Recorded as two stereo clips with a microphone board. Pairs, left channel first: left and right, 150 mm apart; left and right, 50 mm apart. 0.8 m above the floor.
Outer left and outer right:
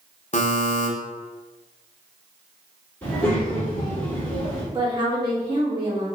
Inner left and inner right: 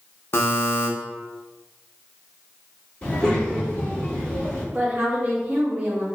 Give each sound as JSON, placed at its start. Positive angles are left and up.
{"t": 0.3, "sound": "a buzzer", "side_deg": 50, "distance_m": 0.5}
{"t": 3.0, "sound": "a child speaking", "side_deg": 15, "distance_m": 1.6}
{"t": 4.7, "sound": "a woman speaking", "side_deg": -30, "distance_m": 1.1}